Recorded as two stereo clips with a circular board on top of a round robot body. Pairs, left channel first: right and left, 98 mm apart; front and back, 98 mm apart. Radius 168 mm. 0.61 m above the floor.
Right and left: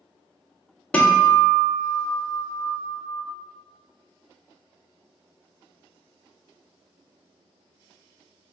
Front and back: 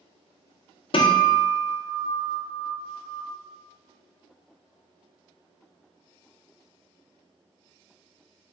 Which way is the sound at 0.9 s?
15° right.